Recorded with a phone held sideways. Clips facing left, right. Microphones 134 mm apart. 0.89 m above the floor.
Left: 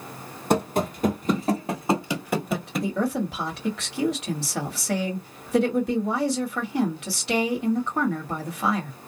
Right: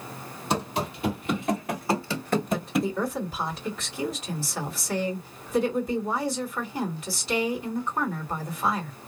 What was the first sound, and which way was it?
Running footsteps, 50° left (ahead or behind).